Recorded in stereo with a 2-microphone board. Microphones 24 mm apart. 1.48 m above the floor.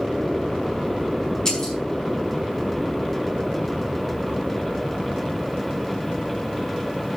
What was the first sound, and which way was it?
Breaking glass, 25° left (ahead or behind).